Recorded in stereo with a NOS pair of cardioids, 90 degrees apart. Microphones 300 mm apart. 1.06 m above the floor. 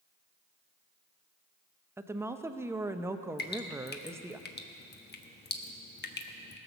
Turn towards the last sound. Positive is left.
turn(degrees=35)